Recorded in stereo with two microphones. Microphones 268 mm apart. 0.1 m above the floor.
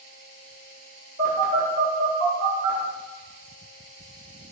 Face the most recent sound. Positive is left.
turn(degrees=-35)  # may be behind; listen again after turning